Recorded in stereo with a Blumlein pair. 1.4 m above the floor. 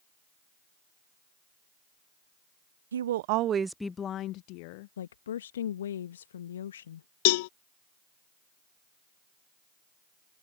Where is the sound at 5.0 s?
65° left.